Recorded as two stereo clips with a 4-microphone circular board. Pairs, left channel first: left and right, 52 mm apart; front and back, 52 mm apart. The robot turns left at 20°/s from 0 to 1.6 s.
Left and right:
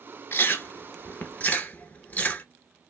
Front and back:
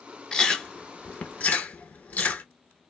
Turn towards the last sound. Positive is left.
turn(degrees=45)